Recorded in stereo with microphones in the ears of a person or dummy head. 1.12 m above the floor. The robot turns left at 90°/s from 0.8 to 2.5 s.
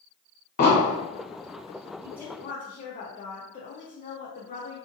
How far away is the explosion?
About 0.9 m.